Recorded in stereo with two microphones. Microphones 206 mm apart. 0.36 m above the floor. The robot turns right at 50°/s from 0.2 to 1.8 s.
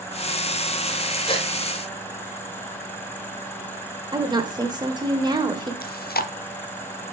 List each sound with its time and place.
1.3 s a gasp: 25° left (ahead or behind), 1.0 m; by 1.5 s 30° left (ahead or behind), 1.0 m
4.1 s a woman speaking: 20° right (ahead or behind), 0.9 m
5.8 s chewing: 50° left (ahead or behind), 0.5 m